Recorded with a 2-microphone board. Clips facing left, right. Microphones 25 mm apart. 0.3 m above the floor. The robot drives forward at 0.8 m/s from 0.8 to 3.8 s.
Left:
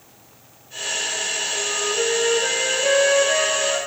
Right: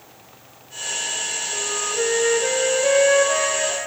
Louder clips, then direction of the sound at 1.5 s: Left 1 dB; 15° right (ahead or behind).